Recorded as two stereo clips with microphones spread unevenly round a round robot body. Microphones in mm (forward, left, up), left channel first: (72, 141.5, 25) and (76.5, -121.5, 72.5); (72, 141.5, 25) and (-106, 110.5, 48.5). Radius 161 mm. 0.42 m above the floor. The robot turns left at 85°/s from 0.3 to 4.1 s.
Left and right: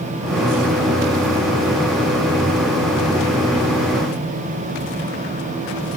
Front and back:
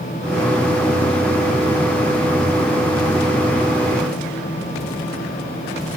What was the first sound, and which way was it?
Only background noise.